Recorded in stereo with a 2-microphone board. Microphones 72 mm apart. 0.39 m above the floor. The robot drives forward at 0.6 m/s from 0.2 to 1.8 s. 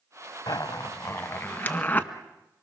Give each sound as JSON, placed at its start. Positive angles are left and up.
{"t": 0.5, "sound": "a zipper", "side_deg": 70, "distance_m": 0.6}